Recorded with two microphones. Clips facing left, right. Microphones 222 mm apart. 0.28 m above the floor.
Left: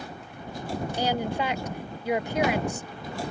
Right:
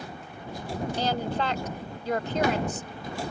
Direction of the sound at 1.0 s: 10° left (ahead or behind).